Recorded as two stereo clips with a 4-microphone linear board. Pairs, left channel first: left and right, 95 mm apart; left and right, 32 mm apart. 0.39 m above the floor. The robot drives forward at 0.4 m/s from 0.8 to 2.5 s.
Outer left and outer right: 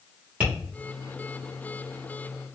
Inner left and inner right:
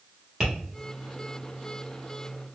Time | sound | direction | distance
0.4 | tapping | 15° right (ahead or behind) | 1.2 m